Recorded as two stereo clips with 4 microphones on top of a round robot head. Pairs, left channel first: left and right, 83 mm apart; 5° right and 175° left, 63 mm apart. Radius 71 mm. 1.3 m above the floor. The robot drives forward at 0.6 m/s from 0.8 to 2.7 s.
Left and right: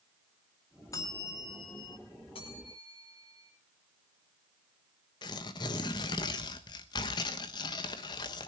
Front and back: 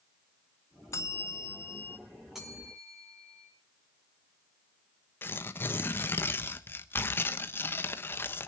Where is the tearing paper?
45° left, 1.2 m.